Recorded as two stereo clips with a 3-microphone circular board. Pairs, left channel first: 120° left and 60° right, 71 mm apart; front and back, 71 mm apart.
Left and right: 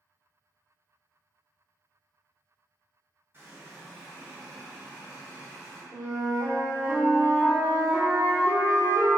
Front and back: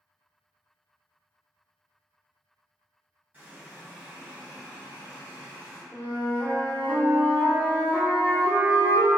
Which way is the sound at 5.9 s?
60° right.